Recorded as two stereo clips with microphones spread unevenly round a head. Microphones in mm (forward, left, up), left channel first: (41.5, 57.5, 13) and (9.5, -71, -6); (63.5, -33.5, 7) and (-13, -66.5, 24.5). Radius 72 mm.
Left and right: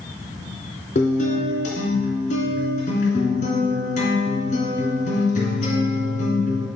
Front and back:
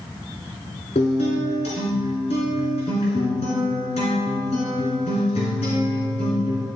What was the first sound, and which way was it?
A guitar, 50° left.